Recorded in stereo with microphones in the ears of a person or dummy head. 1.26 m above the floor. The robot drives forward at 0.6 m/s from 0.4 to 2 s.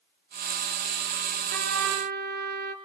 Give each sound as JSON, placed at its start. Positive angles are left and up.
{"t": 1.5, "sound": "a trumpet", "side_deg": -50, "distance_m": 3.0}